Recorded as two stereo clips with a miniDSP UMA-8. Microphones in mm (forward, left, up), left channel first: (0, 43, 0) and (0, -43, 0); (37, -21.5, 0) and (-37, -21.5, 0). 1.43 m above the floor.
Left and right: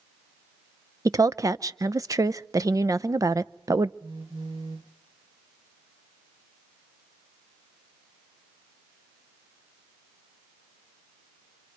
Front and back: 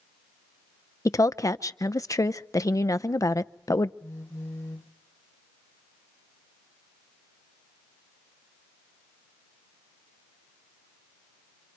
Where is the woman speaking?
40° right, 0.7 m.